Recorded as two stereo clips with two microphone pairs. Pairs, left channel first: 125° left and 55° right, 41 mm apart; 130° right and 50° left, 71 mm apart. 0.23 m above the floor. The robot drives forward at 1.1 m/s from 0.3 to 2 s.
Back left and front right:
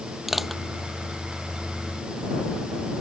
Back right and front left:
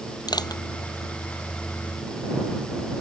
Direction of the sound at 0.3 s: 140° right.